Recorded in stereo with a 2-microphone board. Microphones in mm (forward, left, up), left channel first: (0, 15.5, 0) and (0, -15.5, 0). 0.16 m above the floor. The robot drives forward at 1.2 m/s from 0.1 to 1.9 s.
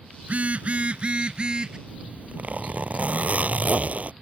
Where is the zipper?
50° right (ahead or behind).